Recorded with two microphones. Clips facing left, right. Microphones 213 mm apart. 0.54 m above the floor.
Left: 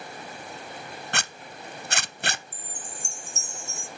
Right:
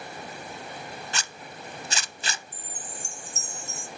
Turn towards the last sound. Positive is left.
turn(degrees=-35)  # may be behind; listen again after turning